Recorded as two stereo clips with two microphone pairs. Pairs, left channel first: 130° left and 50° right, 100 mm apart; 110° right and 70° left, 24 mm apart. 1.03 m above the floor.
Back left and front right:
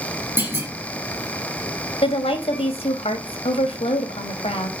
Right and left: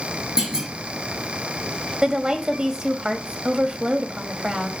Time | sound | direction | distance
0.4 | a clunk | 20° left | 2.5 m
2.0 | a woman speaking | 125° left | 1.7 m